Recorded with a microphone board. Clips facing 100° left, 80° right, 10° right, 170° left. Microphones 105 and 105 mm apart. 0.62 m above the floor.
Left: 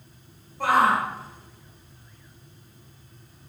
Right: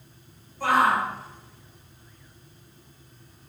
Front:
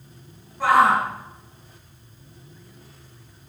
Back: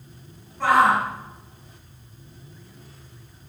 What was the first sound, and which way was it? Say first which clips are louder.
A shout: left 1 dB, front 1 dB; 70° left.